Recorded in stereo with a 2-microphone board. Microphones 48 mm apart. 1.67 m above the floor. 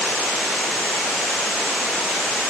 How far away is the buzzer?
No buzzer in this recording.